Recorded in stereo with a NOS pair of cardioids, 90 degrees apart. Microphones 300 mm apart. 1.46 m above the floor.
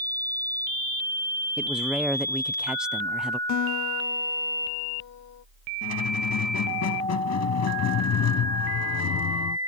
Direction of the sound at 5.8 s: 60° left.